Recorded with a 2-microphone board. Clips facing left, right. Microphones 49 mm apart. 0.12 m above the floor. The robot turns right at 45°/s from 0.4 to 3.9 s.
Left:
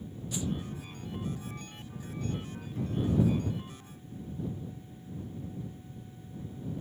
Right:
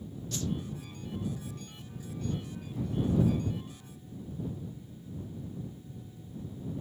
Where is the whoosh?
15° left (ahead or behind); by 0.5 s 20° left (ahead or behind).